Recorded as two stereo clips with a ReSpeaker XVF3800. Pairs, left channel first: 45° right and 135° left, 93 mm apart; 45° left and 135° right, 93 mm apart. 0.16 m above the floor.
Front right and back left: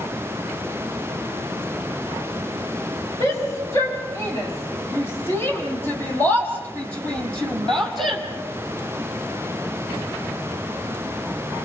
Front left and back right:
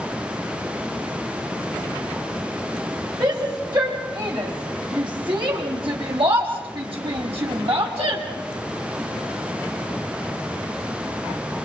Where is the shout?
100° right, 9 m; by 8.2 s 135° right, 4 m.